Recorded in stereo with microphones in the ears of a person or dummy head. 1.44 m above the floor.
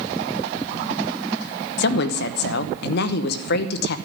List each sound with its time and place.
1.8 s a woman speaking: 70° left (ahead or behind), 1.0 m